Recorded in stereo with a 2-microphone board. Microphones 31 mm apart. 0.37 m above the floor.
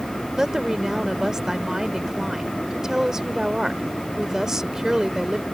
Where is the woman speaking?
15° right (ahead or behind).